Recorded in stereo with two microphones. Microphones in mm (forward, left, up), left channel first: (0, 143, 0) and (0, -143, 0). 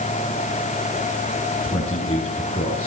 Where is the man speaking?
20° left (ahead or behind), 7 m.